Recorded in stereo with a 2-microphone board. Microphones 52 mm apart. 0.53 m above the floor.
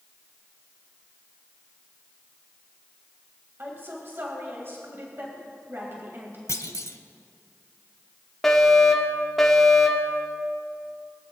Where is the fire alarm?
5° left (ahead or behind), 1.9 m.